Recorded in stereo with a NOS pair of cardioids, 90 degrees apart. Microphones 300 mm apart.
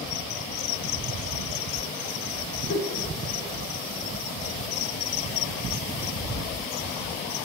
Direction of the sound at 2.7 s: 60° left.